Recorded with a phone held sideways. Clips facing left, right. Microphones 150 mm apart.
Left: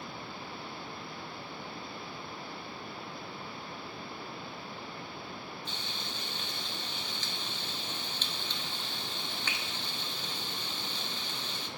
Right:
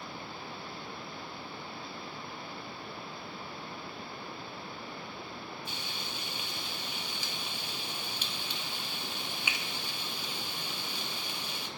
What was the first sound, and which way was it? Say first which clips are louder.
Frying: even; 10° right (ahead or behind).